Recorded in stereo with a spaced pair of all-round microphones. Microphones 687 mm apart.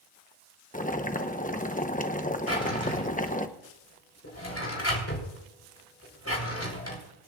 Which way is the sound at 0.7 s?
10° left (ahead or behind).